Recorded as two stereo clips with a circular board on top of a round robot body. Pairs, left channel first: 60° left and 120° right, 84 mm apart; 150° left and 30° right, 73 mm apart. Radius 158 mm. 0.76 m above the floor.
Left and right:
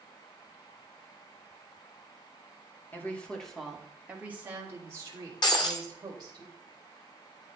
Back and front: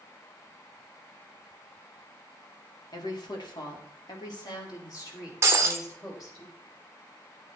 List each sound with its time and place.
2.9 s a woman speaking: 125° left, 2.5 m; by 6.4 s 160° right, 5 m
5.4 s breaking glass: 25° left, 1.1 m